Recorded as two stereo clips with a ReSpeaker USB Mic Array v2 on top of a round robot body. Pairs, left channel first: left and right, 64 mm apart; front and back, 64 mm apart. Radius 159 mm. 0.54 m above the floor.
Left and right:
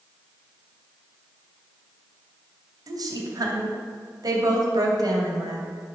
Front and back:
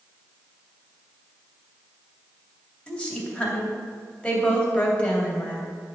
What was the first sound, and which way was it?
A woman speaking, 70° right.